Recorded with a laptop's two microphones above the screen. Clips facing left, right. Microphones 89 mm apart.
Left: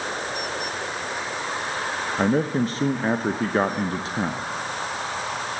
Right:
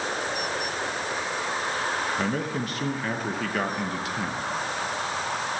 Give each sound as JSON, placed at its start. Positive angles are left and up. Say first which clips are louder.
{"t": 2.2, "sound": "a man speaking", "louder": "left 6 dB", "side_deg": 30, "distance_m": 0.7}